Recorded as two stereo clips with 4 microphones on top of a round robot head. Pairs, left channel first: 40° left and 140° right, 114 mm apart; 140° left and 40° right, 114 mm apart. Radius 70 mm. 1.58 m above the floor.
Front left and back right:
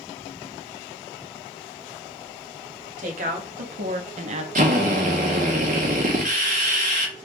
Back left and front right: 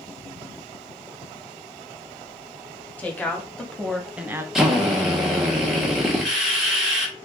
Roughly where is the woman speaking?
Behind right.